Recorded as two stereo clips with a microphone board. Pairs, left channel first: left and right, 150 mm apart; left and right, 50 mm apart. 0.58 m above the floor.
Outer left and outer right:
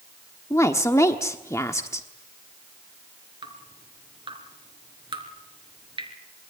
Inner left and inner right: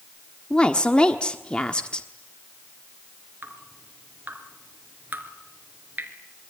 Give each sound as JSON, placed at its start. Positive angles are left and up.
{"t": 0.5, "sound": "a woman speaking", "side_deg": 20, "distance_m": 1.2}
{"t": 3.4, "sound": "dripping", "side_deg": -35, "distance_m": 3.0}